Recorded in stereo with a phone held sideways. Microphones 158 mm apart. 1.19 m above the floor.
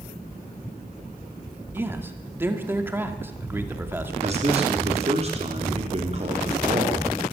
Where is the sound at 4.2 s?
40° right (ahead or behind), 3.5 m.